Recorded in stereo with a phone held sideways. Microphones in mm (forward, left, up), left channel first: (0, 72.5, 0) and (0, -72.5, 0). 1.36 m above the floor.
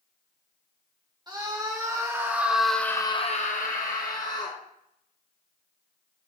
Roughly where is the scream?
Right.